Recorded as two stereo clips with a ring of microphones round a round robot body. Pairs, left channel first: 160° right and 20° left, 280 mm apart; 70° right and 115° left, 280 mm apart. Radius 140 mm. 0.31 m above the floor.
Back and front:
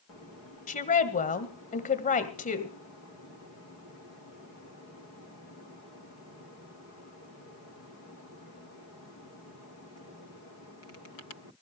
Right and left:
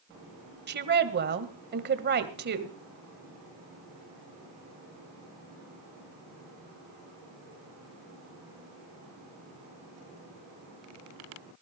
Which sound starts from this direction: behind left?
A woman speaking, at 0.7 s.